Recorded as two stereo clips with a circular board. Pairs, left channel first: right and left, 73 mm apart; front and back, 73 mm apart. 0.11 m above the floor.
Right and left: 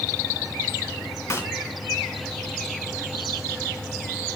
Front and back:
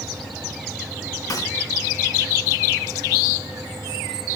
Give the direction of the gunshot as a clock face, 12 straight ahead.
1 o'clock.